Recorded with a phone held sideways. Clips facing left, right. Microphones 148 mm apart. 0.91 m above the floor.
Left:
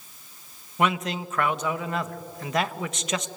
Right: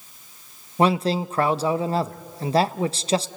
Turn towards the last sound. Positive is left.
turn(degrees=-30)  # may be behind; listen again after turning